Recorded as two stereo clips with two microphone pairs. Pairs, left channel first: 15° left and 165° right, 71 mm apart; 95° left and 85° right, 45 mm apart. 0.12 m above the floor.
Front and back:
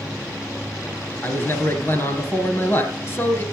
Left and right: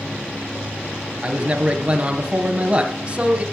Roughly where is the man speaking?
Ahead right.